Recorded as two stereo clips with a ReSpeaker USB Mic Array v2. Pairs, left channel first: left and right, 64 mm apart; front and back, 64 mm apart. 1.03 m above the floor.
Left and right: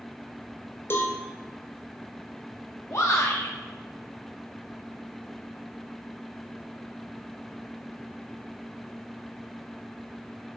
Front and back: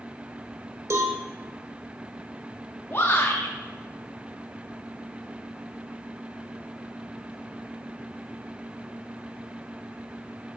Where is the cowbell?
140° left, 1.4 m.